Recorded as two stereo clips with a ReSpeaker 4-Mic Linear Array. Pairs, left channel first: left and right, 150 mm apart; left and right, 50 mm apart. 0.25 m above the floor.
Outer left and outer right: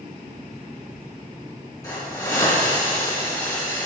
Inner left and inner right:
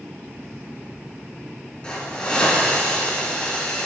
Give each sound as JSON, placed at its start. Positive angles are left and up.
{"t": 1.8, "sound": "a hiss", "side_deg": 25, "distance_m": 2.5}